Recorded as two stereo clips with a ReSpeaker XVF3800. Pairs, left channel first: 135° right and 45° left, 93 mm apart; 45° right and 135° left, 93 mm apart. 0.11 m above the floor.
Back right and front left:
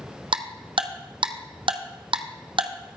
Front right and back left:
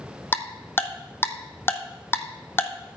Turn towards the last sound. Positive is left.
turn(degrees=20)